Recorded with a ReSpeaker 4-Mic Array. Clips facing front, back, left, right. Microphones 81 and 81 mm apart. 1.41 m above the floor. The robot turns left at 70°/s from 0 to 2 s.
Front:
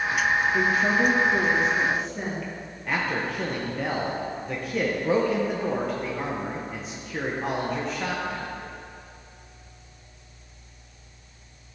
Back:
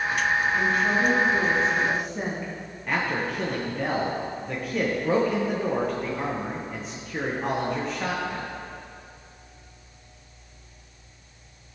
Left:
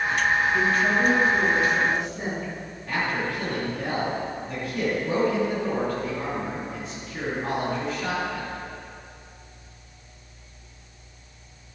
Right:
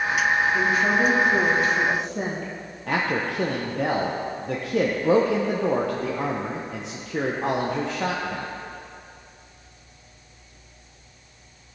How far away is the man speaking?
About 1.0 m.